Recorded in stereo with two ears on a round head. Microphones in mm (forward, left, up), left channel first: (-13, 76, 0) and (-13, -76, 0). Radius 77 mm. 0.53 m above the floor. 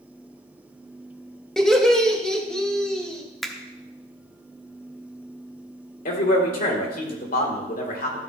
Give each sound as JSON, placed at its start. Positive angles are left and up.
{"t": 1.6, "sound": "laughter", "side_deg": 5, "distance_m": 1.5}
{"t": 3.4, "sound": "a finger snap", "side_deg": 0, "distance_m": 0.7}
{"t": 6.0, "sound": "a man speaking", "side_deg": 55, "distance_m": 2.0}